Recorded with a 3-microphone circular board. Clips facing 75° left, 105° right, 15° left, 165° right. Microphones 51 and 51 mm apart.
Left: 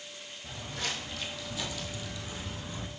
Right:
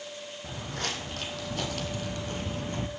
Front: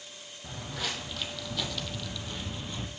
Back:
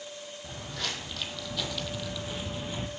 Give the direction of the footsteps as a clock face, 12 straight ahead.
2 o'clock.